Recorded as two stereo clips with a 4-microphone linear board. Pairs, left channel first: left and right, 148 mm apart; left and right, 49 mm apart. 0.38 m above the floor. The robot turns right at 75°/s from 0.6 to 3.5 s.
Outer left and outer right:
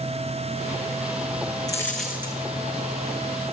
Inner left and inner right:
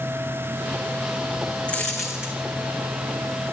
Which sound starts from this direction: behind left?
A dropped coin, at 1.7 s.